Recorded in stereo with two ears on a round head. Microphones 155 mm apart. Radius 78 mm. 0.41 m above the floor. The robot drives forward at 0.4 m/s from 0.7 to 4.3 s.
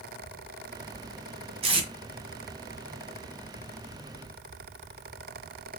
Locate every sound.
1.6 s tape being pulled: 35° right (ahead or behind), 2.0 m